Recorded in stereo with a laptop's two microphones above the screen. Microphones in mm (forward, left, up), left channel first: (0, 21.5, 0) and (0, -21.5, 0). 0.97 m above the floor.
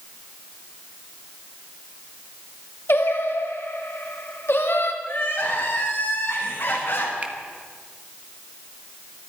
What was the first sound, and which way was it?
Singing, 65° left (ahead or behind).